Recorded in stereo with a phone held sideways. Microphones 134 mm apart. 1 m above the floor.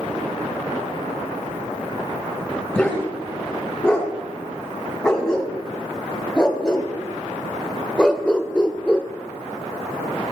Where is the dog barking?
5° left (ahead or behind), 4.5 m; by 9.1 s 10° left (ahead or behind), 0.9 m.